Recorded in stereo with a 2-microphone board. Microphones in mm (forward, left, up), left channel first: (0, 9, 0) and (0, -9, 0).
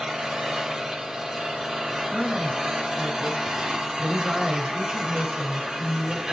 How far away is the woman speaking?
About 3.5 m.